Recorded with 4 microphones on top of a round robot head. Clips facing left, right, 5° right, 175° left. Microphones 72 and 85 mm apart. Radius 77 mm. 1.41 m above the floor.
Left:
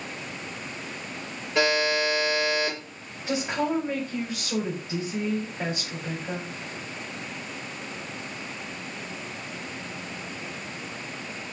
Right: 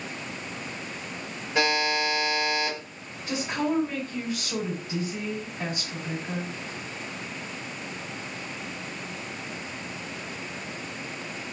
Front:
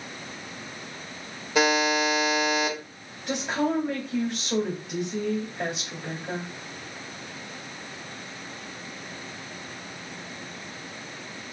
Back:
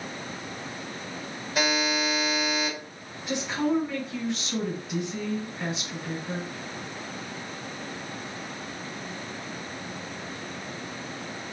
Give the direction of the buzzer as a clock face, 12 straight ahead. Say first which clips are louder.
Left 2 dB, front 4 dB; 12 o'clock.